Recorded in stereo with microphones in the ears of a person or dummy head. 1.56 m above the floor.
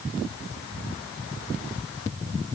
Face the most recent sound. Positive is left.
No sound to turn to.